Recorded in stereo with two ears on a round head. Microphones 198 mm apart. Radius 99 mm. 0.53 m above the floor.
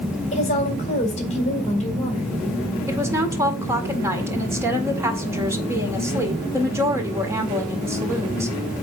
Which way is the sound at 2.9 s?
15° right (ahead or behind).